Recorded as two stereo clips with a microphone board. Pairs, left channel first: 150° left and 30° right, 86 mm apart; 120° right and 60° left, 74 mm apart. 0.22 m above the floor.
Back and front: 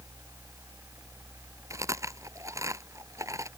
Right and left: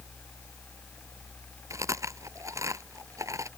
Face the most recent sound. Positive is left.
turn(degrees=20)